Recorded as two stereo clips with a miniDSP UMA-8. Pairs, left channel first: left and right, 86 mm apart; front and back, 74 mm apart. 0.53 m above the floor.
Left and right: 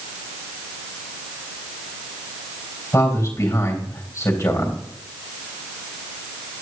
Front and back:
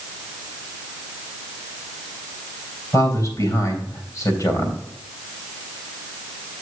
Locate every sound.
2.9 s a man speaking: 35° left, 3 m